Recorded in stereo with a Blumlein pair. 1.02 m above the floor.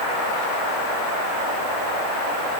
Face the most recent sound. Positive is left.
No sound to turn to.